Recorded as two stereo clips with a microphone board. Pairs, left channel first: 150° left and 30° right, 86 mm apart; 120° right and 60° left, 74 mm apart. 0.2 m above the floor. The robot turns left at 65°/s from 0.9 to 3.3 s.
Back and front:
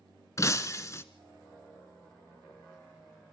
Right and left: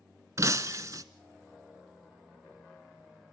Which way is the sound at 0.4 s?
100° left.